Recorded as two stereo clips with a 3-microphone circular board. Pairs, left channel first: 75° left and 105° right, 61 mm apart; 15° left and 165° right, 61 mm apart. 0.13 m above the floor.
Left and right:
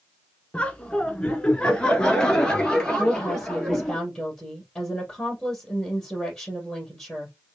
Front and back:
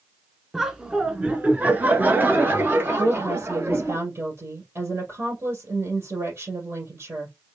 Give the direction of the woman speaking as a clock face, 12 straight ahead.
7 o'clock.